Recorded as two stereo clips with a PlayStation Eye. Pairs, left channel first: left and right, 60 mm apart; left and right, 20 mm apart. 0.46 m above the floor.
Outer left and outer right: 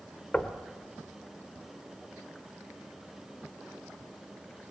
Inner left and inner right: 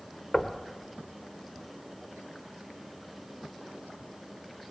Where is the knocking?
20° left (ahead or behind), 1.3 m.